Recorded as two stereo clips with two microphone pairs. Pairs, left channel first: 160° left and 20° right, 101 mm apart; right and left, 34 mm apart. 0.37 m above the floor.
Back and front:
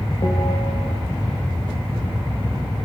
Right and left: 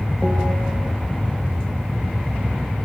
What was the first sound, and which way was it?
A bell, 170° right.